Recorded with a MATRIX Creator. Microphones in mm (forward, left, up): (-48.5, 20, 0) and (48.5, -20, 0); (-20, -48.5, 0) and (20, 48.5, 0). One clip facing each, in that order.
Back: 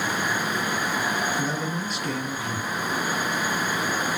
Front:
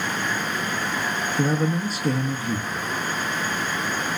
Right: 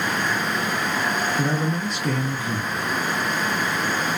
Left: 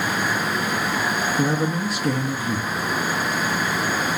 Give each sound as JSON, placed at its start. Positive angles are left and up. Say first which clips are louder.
{"t": 1.4, "sound": "a man speaking", "louder": "front 5 dB, left 2 dB", "azimuth_deg": -10, "distance_m": 0.7}